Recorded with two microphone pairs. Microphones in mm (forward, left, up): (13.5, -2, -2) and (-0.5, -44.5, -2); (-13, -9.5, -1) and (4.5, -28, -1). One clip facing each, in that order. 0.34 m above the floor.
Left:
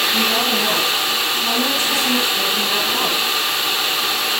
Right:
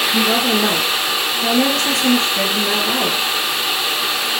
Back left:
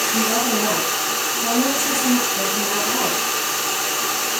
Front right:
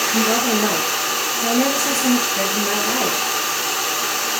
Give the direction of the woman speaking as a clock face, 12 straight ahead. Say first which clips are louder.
Right 2 dB, front right 3 dB; 3 o'clock.